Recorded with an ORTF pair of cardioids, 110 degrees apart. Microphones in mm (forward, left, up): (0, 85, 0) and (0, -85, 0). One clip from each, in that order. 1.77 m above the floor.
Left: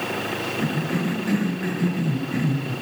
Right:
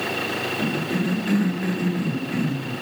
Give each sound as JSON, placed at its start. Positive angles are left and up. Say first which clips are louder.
{"t": 0.6, "sound": "a cough", "louder": "right 1 dB", "azimuth_deg": 0, "distance_m": 4.0}